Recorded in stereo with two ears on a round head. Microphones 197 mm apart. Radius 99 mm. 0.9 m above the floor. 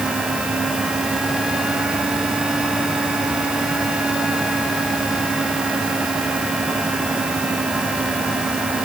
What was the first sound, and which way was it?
Only background noise.